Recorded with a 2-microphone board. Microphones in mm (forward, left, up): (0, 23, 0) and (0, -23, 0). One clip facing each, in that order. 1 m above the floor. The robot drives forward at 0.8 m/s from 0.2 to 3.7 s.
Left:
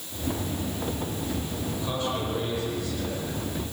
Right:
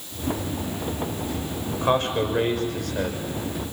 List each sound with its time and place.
1.7 s a man speaking: 50° right (ahead or behind), 5.5 m; by 3.2 s 60° right (ahead or behind), 4.5 m